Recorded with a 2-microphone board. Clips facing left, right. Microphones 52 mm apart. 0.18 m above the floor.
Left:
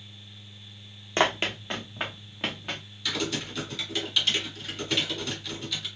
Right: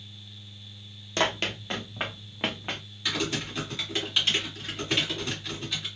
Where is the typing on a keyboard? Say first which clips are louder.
Right 1 dB; 25° right (ahead or behind), 2 m.